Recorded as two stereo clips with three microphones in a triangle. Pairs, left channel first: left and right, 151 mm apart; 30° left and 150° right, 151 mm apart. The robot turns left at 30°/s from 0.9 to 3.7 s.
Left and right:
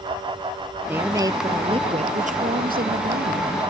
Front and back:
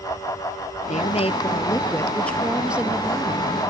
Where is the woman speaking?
10° right; by 3.6 s 90° right.